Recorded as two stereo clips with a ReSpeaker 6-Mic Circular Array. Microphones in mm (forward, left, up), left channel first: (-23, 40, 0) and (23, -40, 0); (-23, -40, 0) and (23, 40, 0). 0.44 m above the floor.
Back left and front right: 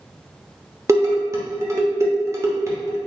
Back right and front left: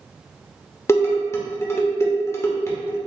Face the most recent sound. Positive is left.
turn(degrees=-85)